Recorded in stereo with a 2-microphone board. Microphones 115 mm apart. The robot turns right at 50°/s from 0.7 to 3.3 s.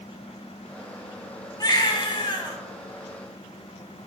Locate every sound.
1.6 s a baby crying: 60° left, 0.8 m; by 2.6 s 110° left, 0.8 m